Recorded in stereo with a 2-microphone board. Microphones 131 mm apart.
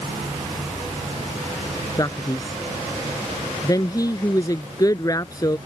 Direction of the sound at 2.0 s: 30° left (ahead or behind).